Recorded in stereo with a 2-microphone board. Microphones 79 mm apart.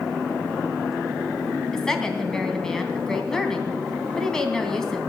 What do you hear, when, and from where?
1.7 s a woman speaking: 10° left (ahead or behind), 3 m